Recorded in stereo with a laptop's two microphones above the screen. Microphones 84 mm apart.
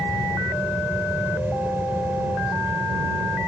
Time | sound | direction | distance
0.0 | a fan | 25° right (ahead or behind) | ?